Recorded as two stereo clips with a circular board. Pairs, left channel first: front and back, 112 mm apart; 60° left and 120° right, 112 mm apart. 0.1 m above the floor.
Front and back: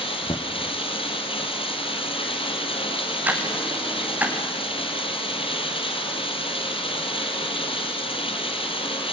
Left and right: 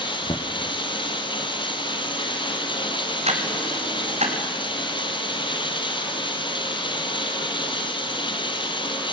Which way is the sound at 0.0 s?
25° left.